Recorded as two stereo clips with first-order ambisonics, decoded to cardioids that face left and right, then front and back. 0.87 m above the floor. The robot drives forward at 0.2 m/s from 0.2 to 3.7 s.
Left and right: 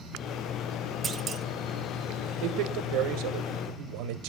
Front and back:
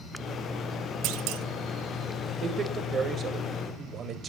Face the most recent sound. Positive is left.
turn(degrees=-120)